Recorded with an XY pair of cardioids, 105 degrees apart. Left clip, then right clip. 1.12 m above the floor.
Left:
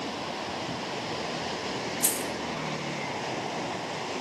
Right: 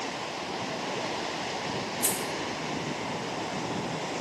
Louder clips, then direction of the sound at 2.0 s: Even; 30° left.